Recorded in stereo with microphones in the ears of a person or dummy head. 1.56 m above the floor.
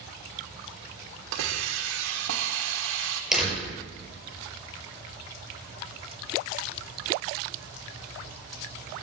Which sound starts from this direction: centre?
A door slam, at 3.3 s.